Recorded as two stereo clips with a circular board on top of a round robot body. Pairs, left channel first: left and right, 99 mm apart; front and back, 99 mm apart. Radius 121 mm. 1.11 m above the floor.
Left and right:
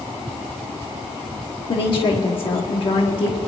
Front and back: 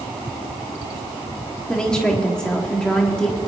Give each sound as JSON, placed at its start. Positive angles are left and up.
{"t": 1.7, "sound": "a woman speaking", "azimuth_deg": 80, "distance_m": 1.2}